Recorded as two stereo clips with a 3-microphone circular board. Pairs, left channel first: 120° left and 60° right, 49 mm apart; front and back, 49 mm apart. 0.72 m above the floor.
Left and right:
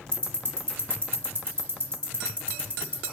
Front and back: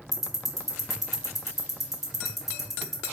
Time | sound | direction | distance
0.1 | ticking | 95° right | 1.2 m